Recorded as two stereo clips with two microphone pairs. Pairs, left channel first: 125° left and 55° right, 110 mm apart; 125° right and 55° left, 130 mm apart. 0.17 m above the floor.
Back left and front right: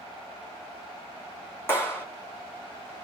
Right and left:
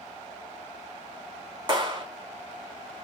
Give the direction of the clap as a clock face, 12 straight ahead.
10 o'clock.